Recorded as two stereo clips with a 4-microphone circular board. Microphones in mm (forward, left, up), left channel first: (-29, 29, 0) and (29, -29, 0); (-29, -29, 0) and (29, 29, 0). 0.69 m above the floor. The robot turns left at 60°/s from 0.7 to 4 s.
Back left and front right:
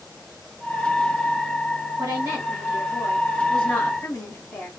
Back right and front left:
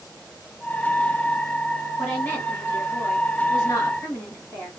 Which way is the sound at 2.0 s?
55° right.